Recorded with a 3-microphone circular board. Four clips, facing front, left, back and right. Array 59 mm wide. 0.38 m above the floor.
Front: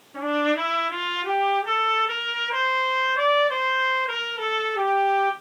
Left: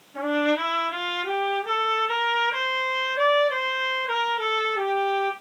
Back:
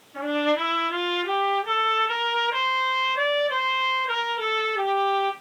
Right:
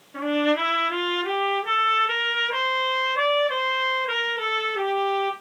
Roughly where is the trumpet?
Ahead right.